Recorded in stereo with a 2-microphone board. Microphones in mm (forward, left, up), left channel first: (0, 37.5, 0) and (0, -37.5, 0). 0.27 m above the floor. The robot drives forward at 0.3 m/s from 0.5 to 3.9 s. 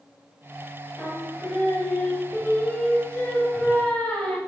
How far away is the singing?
About 0.8 m.